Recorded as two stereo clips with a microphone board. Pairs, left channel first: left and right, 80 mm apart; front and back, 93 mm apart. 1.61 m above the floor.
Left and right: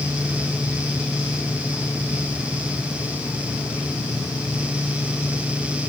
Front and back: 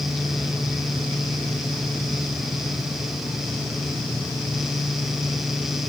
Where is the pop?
No pop in this recording.